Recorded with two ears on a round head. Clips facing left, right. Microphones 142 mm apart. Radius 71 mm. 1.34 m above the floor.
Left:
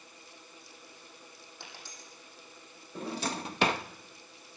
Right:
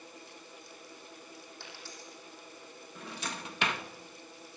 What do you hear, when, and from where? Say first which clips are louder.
1.6 s a dropped coin: right 2 dB; 15° left (ahead or behind), 9.5 m
3.0 s a drawer: left 7 dB; 30° left (ahead or behind), 0.7 m